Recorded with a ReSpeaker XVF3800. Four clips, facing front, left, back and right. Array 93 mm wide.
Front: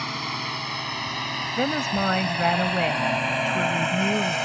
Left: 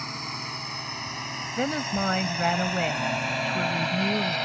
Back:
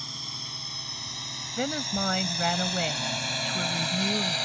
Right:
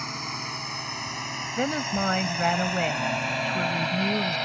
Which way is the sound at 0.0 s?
5° right.